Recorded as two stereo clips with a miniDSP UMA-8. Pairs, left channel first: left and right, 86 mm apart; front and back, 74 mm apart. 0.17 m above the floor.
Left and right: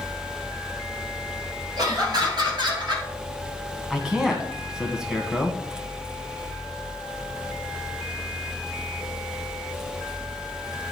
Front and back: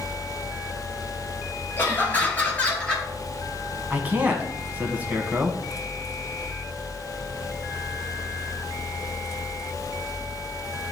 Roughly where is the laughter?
Ahead right.